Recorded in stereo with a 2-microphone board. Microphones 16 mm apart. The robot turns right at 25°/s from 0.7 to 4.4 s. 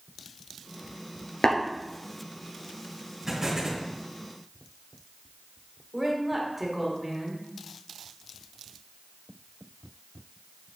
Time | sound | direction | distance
1.4 | tapping | 85° left | 1.9 m
3.3 | an explosion | 25° right (ahead or behind) | 3.5 m
5.9 | a woman speaking | 25° right (ahead or behind) | 2.5 m